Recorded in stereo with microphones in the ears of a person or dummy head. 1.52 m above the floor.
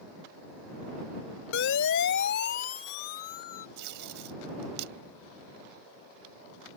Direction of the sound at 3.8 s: 60° right (ahead or behind).